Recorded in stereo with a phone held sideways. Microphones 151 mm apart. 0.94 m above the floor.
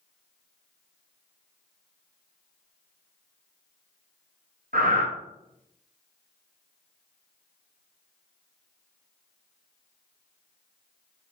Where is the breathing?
70° right (ahead or behind), 0.7 m.